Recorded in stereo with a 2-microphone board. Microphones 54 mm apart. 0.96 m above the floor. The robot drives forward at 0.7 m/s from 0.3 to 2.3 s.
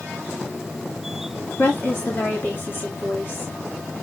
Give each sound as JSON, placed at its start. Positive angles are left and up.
{"t": 1.6, "sound": "a woman speaking", "side_deg": 50, "distance_m": 2.5}